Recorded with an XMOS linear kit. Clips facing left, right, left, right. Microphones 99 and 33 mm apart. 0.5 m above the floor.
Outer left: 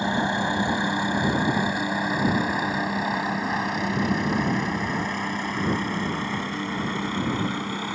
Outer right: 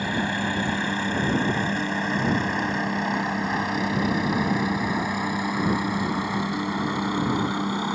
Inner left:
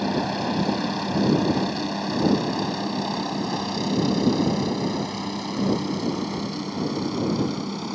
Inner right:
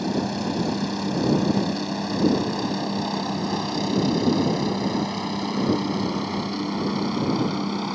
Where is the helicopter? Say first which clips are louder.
Outer left 2 dB, inner left 1 dB; 20° left (ahead or behind); by 8.0 s 20° right (ahead or behind).